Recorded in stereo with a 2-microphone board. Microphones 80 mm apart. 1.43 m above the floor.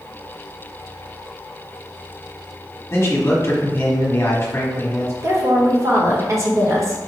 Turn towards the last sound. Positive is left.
turn(degrees=-35)  # may be behind; listen again after turning